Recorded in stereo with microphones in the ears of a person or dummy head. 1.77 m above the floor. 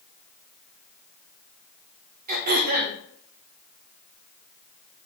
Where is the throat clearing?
45° right (ahead or behind), 0.7 m.